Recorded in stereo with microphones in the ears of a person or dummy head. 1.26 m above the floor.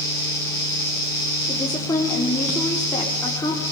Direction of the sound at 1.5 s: 15° left (ahead or behind).